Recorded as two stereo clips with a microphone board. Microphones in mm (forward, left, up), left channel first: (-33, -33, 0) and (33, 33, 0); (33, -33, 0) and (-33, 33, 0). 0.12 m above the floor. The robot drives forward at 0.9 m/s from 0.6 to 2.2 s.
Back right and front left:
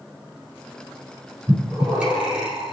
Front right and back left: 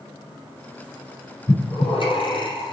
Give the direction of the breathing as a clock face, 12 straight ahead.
1 o'clock.